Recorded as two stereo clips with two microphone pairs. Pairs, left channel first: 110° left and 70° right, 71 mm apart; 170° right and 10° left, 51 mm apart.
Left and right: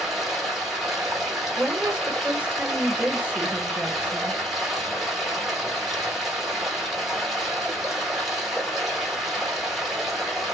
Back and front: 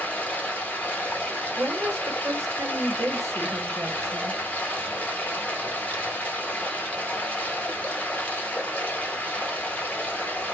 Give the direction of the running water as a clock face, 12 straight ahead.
5 o'clock.